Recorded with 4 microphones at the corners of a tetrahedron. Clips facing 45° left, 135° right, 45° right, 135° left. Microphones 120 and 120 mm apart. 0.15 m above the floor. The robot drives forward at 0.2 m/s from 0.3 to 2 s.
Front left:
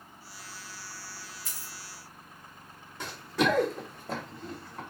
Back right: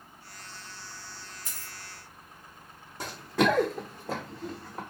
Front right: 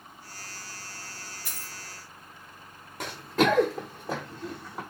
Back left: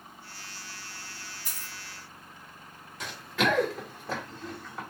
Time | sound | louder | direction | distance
1.4 | a dropped coin | even, front right 1 dB | 65° right | 1.0 m
3.0 | running footsteps | back right 2 dB, front right 4 dB | 85° right | 0.8 m